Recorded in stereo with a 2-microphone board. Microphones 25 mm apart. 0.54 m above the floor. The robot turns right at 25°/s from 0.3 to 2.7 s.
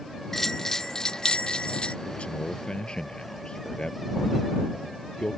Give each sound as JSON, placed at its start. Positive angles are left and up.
{"t": 0.3, "sound": "a bell", "azimuth_deg": 15}
{"t": 2.0, "sound": "a man speaking", "side_deg": 50}